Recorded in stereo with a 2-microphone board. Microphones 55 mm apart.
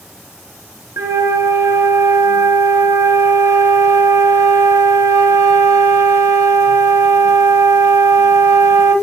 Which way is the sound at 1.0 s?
75° right (ahead or behind).